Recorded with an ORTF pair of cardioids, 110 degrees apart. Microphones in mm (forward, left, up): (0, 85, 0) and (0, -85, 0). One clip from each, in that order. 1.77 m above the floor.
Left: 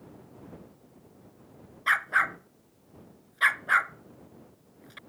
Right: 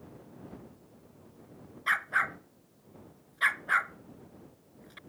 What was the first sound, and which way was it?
A dog barking, 20° left.